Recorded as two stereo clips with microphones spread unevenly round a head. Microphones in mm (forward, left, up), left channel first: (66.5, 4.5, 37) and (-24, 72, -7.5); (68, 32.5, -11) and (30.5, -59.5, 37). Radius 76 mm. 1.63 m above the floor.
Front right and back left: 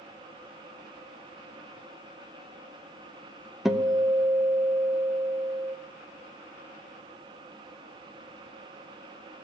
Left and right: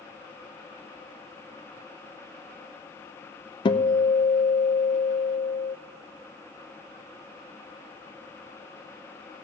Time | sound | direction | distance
3.6 | a guitar | 20° left | 0.8 m